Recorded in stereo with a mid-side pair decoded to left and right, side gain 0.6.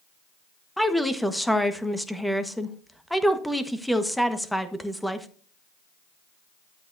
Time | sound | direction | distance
0.8 | a woman speaking | straight ahead | 1.3 m